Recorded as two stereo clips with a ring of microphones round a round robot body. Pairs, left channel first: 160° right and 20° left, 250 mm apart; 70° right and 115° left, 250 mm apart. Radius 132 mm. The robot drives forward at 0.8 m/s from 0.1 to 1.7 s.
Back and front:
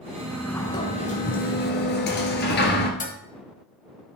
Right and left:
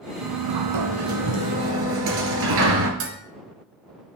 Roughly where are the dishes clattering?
Behind left.